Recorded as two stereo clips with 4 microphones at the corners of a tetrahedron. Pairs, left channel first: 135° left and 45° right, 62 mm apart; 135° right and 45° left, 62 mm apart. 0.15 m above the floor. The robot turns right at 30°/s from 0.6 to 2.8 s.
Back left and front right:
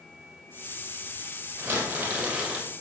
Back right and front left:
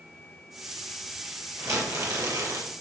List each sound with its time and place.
1.6 s crumpling: 10° left, 4.5 m; by 2.7 s 40° left, 4.5 m